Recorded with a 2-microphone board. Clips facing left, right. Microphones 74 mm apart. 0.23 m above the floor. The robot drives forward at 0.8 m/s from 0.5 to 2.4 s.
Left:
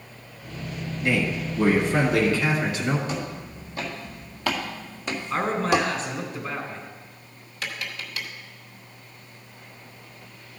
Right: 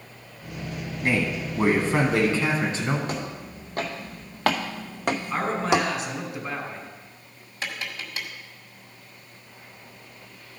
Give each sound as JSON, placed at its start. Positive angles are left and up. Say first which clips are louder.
{"t": 1.0, "sound": "a man speaking", "louder": "even", "side_deg": -45, "distance_m": 1.7}
{"t": 3.1, "sound": "footsteps", "louder": "left 1 dB", "side_deg": -60, "distance_m": 3.0}
{"t": 5.3, "sound": "a man speaking", "louder": "left 2 dB", "side_deg": -10, "distance_m": 2.5}
{"t": 7.6, "sound": "tapping", "louder": "even", "side_deg": -35, "distance_m": 1.7}